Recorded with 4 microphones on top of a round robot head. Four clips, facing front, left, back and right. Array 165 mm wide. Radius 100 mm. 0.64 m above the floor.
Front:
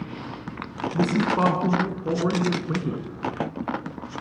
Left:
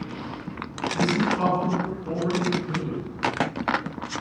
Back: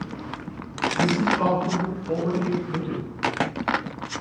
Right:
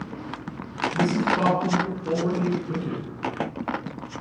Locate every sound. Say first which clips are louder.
0.9 s a man speaking: right 1 dB, front 1 dB; 20° right, 6.5 m